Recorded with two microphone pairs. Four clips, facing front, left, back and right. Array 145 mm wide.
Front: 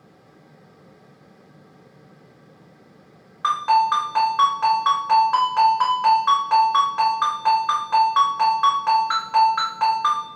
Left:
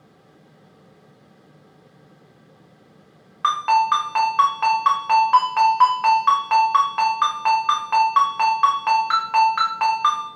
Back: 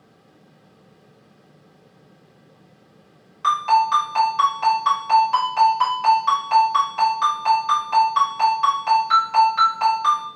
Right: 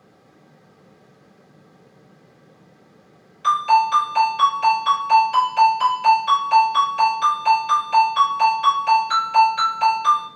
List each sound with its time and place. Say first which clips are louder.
3.4 s a ringtone: right 1 dB, back 1 dB; 75° left, 1.8 m